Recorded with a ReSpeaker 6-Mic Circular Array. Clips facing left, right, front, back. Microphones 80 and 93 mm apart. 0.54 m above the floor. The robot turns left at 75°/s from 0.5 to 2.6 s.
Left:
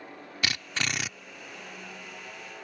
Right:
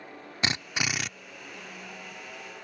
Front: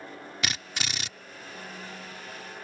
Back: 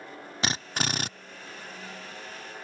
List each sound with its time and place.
0.4 s a drill: 140° right; by 1.1 s 175° left